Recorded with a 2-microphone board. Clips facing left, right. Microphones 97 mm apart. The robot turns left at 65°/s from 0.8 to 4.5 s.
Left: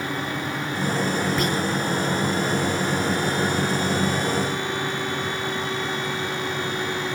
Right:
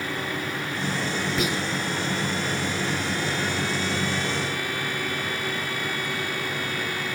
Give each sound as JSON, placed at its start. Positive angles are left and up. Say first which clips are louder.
{"t": 1.4, "sound": "whispering", "louder": "left 3 dB", "side_deg": -5, "distance_m": 1.5}